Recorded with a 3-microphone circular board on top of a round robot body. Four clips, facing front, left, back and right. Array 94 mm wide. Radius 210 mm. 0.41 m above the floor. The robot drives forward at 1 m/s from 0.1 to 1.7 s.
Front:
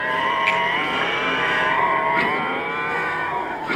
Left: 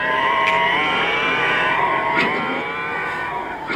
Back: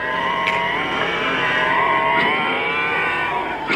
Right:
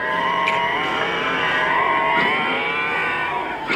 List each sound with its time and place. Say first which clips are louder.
0.5 s a finger snap: left 2 dB, even; 135° left, 8.5 m